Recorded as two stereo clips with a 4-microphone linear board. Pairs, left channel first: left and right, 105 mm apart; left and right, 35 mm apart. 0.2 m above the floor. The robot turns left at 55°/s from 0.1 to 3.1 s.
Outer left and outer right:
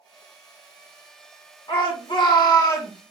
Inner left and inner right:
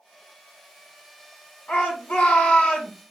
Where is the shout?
110° left, 2.5 m; by 2.9 s 40° left, 2.5 m.